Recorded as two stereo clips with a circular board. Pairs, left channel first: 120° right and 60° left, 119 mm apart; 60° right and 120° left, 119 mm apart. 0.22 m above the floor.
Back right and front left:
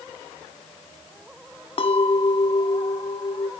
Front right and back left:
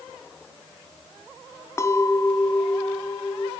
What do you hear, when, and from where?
1.8 s a clink: 120° right, 1.0 m